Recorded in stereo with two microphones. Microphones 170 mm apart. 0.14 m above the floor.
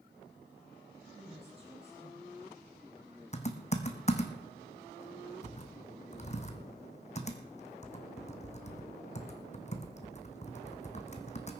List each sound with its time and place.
1.1 s a woman speaking: 35° right (ahead or behind), 4 m
3.3 s typing on a keyboard: 40° left (ahead or behind), 1.2 m